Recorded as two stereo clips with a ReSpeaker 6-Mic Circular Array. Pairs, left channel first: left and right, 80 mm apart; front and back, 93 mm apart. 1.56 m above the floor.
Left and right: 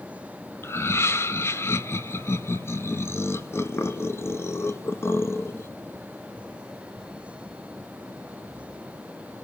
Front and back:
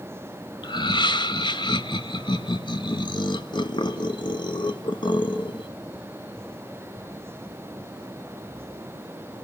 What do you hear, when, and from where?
0.6 s laughter: 35° left, 1.7 m